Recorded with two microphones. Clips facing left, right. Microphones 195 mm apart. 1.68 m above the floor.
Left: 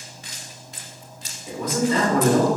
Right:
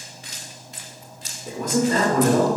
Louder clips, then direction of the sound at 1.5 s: Right 1 dB; 50° right (ahead or behind).